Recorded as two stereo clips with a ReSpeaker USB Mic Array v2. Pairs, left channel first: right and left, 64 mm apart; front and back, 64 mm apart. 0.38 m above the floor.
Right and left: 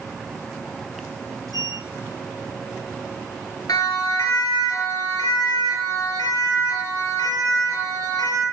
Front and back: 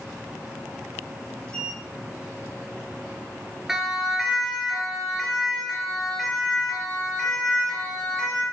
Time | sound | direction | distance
1.5 | a sliding door | 75° left | 5.5 m
3.7 | a siren | 95° right | 7.5 m